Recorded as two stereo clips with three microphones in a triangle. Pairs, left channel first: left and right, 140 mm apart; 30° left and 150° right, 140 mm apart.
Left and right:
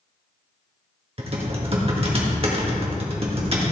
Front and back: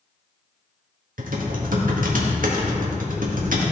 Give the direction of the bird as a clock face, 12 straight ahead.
No bird in this recording.